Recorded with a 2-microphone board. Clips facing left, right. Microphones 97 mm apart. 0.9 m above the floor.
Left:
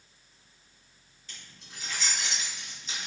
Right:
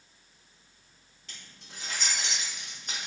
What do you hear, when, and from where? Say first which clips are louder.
1.3 s keys jangling: even; 85° right, 2.0 m; by 3.1 s 50° right (ahead or behind), 0.9 m